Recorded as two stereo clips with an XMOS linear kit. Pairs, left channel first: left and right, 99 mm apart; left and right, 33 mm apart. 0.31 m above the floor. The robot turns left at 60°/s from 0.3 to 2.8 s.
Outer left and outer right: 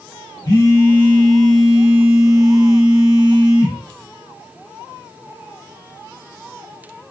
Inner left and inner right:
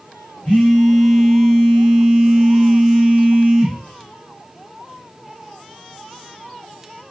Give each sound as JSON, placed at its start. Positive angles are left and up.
{"t": 0.5, "sound": "a phone buzzing", "azimuth_deg": 60, "distance_m": 1.3}